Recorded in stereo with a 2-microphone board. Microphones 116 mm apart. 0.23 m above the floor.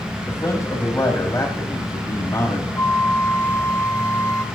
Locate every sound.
0.3 s a man speaking: 30° left (ahead or behind), 1.2 m
2.8 s a flute: 25° left (ahead or behind), 1.3 m